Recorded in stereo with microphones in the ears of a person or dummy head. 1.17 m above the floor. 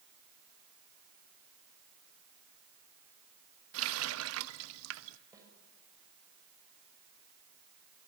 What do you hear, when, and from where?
3.7 s a running tap: 80° right, 0.9 m
5.3 s a snare drum: 15° right (ahead or behind), 6.5 m